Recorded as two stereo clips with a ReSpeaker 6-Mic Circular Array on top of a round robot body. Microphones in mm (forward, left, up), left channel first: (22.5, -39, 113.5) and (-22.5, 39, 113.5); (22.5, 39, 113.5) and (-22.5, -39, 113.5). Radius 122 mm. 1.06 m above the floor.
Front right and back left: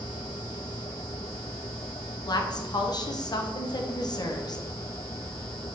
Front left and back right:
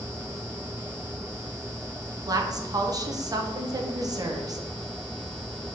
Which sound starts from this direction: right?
A woman speaking, at 2.3 s.